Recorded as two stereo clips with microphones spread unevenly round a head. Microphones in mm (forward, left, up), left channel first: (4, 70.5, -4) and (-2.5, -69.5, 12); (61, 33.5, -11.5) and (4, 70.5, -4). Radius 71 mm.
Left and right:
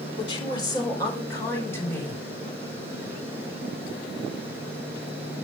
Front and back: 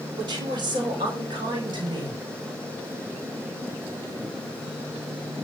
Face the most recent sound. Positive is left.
turn(degrees=165)